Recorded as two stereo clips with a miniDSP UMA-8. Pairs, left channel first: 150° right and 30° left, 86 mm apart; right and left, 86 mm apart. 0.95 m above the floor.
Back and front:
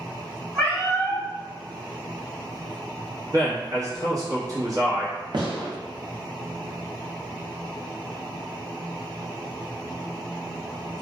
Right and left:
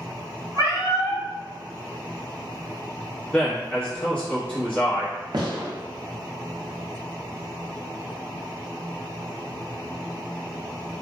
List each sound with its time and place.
0.6 s a cat meowing: 65° right, 1.2 m
3.3 s a man speaking: 15° right, 1.1 m
5.3 s a gunshot: 60° left, 0.6 m